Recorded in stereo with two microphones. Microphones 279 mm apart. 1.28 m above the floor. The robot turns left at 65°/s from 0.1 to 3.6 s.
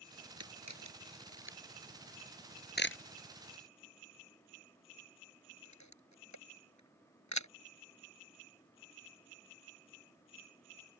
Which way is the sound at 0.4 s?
60° right (ahead or behind).